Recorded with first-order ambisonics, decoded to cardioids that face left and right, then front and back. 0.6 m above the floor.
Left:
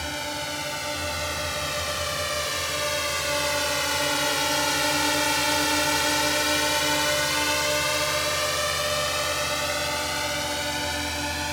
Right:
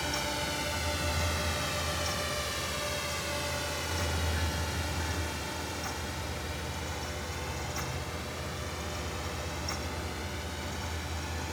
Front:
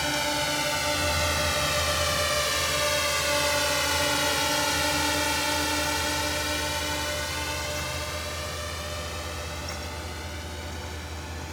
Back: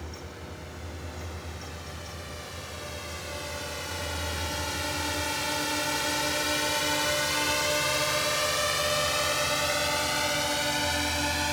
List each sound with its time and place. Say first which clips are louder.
0.0 s a drone: left 3 dB, front 16 dB; 10° left; by 11.5 s 135° left